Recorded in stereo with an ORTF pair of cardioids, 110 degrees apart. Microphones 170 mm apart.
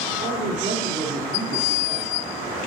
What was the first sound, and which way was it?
A man speaking, 60° right.